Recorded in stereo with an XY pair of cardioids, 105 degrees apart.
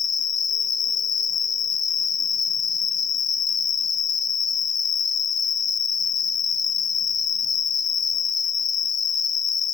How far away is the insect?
About 1.0 m.